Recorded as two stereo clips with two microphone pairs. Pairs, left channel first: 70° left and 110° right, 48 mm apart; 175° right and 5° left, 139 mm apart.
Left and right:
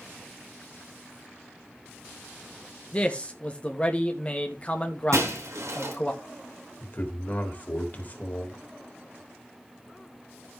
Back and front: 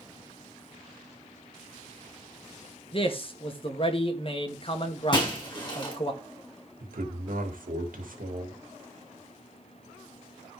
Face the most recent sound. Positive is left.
turn(degrees=20)